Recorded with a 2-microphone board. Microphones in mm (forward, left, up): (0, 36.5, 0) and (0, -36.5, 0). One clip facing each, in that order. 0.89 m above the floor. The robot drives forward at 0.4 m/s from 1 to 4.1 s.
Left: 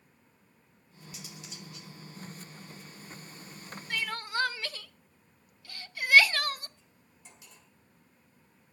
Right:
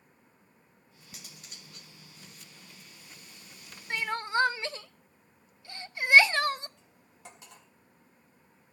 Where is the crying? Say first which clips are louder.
Right 4 dB; 25° right (ahead or behind), 0.6 m.